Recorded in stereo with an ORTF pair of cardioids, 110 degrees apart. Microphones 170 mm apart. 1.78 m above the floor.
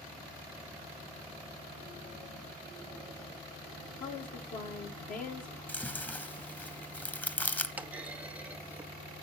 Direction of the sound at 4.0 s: 60° left.